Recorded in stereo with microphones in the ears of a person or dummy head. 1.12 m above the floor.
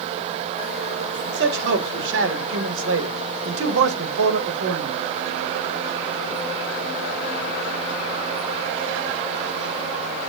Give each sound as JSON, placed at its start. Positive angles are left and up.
{"t": 1.3, "sound": "a man speaking", "side_deg": -70, "distance_m": 3.0}